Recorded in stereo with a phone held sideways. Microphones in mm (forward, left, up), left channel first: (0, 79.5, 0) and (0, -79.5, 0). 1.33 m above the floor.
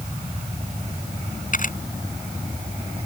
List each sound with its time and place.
1.5 s a camera shutter: 55° left (ahead or behind)